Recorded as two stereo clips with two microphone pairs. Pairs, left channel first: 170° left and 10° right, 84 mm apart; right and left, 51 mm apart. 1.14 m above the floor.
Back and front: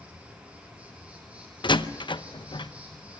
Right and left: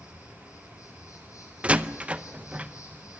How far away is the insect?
About 8 m.